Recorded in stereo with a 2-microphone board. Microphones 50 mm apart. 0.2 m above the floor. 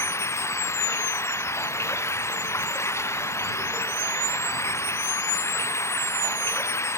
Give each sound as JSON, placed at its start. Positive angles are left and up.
{"t": 0.0, "sound": "running water", "side_deg": 70}